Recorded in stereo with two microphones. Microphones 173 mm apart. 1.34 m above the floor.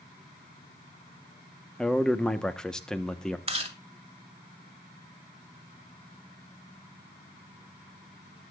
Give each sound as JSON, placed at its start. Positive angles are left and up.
{"t": 1.8, "sound": "a man speaking", "side_deg": 5, "distance_m": 1.2}
{"t": 3.5, "sound": "chewing", "side_deg": -35, "distance_m": 2.0}